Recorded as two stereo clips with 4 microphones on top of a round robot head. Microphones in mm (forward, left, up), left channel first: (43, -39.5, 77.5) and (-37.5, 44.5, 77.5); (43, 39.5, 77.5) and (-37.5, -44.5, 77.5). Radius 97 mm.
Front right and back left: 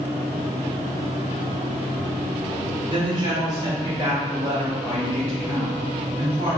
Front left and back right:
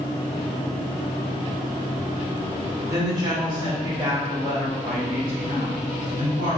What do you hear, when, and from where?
2.9 s a woman speaking: 170° left, 1.4 m; by 6.6 s 145° right, 2.5 m